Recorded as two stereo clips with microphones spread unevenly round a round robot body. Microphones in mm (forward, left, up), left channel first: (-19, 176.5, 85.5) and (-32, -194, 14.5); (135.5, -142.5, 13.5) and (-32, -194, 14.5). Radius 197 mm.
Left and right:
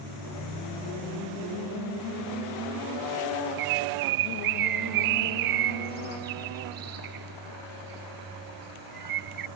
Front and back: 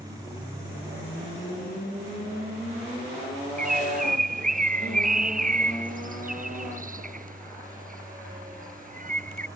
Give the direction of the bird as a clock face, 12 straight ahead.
4 o'clock.